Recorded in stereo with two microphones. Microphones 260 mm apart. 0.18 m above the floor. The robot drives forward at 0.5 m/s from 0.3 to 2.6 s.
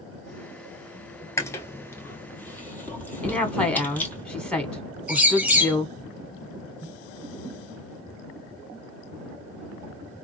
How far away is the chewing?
About 1.0 m.